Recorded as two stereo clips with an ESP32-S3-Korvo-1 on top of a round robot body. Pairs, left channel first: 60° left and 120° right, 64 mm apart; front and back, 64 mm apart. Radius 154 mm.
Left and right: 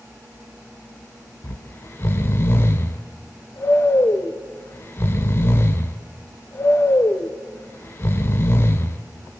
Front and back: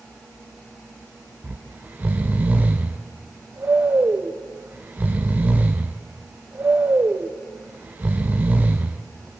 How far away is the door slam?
I don't hear a door slam.